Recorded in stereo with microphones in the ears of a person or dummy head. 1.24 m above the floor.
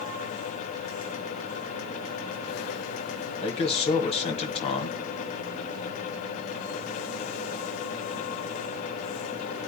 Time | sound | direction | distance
3.4 | a man speaking | 30° left (ahead or behind) | 1.6 m